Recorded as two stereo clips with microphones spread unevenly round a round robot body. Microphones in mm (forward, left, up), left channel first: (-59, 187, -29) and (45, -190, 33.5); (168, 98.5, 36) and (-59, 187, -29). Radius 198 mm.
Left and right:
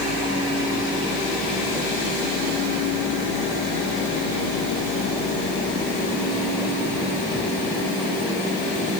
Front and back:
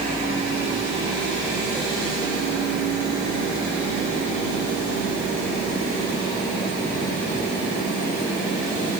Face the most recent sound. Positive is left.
No sound to turn to.